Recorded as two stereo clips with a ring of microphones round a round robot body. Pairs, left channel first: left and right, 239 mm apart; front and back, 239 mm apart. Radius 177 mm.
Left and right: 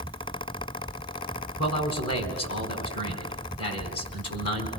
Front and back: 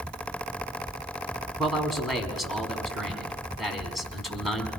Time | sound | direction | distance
1.6 | a man speaking | 90° left | 4.5 m